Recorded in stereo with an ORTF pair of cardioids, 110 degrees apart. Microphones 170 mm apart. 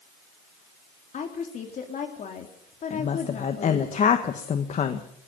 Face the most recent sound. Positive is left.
turn(degrees=45)